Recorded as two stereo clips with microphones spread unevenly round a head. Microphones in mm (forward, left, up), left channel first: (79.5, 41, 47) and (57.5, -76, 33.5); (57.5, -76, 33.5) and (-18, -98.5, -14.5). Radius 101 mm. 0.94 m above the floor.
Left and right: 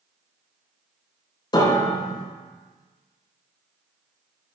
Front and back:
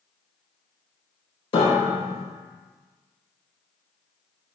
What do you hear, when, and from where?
1.5 s a piano: 25° left, 4 m